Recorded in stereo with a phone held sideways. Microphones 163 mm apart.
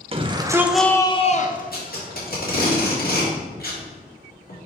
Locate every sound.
0.1 s a shout: 35° right (ahead or behind), 1.0 m; by 2.4 s 75° left (ahead or behind), 1.5 m
1.7 s tape being pulled: 65° left (ahead or behind), 2.5 m